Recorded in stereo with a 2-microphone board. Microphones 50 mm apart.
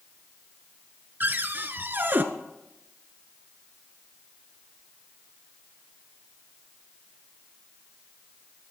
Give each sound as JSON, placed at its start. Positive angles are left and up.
{"t": 1.2, "sound": "a cupboard door", "side_deg": -45, "distance_m": 0.9}